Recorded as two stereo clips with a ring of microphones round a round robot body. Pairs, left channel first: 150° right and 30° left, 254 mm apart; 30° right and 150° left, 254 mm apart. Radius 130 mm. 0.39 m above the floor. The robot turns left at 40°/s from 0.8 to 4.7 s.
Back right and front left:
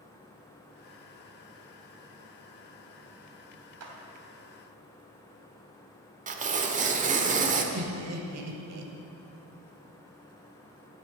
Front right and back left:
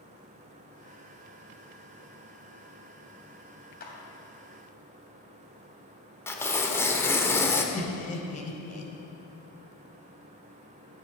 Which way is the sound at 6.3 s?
40° left.